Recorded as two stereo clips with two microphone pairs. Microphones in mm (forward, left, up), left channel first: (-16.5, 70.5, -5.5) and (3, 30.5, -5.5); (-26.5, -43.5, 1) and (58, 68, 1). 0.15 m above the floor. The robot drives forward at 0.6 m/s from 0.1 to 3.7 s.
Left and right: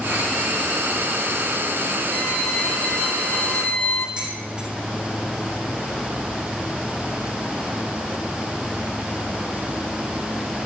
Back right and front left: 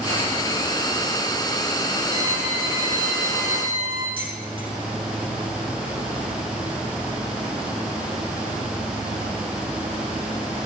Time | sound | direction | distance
2.1 | a violin | 55° left | 6 m
4.2 | dishes clattering | 5° left | 4 m